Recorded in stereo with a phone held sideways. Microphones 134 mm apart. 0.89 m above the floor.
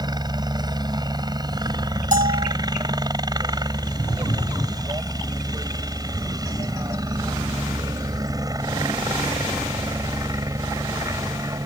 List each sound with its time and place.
0.0 s a helicopter: 30° right (ahead or behind); by 11.7 s 25° right (ahead or behind)
2.1 s a bell: 70° right (ahead or behind)